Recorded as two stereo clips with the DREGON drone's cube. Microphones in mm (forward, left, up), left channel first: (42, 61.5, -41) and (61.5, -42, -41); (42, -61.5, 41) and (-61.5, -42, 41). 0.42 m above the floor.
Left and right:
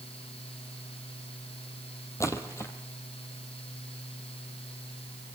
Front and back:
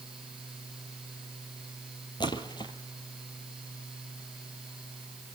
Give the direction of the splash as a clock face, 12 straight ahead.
11 o'clock.